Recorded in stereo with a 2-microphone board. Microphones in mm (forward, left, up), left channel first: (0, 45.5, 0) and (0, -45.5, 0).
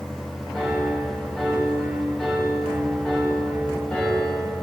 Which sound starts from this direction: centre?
A piano, at 0.5 s.